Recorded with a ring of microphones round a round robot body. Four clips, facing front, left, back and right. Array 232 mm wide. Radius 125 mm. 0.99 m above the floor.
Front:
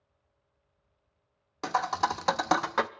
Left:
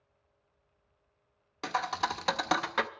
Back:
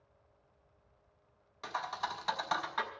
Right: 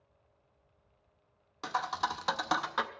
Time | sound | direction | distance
1.6 | a thud | 20° left | 0.6 m